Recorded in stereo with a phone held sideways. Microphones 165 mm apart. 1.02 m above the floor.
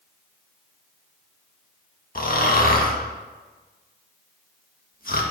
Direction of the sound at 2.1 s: 55° left (ahead or behind).